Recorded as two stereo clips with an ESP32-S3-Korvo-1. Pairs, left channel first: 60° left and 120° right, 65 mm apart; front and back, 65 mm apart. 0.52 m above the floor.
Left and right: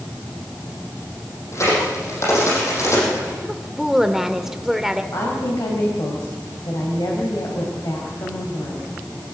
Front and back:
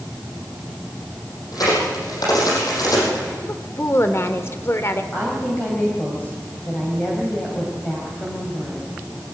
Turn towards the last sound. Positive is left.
turn(degrees=60)